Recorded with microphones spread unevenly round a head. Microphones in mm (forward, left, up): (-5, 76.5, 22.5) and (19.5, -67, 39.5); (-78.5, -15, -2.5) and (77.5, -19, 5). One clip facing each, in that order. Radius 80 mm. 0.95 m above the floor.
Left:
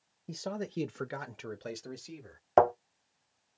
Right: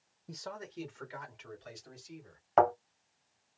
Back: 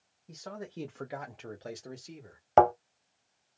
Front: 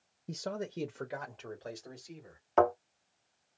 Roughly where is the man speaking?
Ahead left.